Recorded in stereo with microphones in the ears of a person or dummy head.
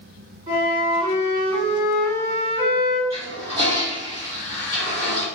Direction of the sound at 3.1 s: 25° right (ahead or behind).